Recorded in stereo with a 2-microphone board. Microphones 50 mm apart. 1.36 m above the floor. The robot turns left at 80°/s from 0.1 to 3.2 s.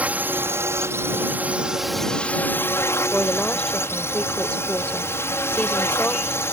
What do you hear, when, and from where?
0.0 s a drone: 35° right; by 6.5 s 75° left
3.1 s a woman speaking: 20° left (ahead or behind); by 6.5 s 25° left (ahead or behind)